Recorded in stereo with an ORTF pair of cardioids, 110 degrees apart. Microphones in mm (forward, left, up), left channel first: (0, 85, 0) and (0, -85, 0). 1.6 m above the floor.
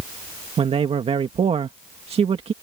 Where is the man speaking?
35° right.